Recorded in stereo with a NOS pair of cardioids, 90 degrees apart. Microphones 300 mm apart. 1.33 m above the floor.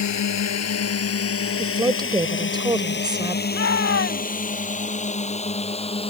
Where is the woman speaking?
15° right.